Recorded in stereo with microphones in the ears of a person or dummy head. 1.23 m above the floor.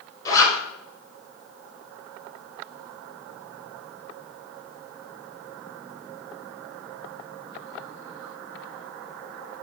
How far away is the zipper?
About 6.5 m.